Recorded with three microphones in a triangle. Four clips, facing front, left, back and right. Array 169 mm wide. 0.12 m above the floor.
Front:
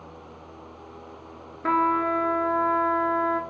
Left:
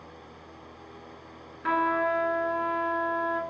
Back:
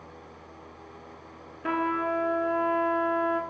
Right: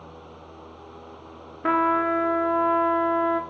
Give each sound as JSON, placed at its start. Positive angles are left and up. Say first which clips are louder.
{"t": 1.6, "sound": "a trumpet", "louder": "right 4 dB, front 5 dB", "azimuth_deg": -80, "distance_m": 0.6}